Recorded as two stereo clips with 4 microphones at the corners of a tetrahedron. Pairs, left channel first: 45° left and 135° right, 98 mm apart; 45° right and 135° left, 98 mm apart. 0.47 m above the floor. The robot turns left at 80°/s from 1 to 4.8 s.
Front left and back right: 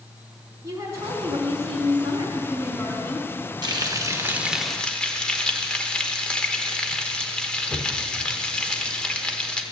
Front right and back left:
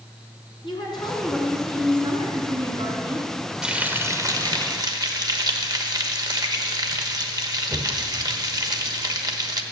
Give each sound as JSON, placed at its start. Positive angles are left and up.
{"t": 0.6, "sound": "a woman speaking", "azimuth_deg": -80, "distance_m": 3.5}
{"t": 3.6, "sound": "frying", "azimuth_deg": -145, "distance_m": 1.2}